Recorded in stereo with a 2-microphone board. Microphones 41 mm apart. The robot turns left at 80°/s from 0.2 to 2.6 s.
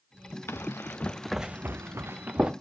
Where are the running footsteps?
80° left, 0.9 m; by 2.5 s 20° right (ahead or behind), 0.9 m.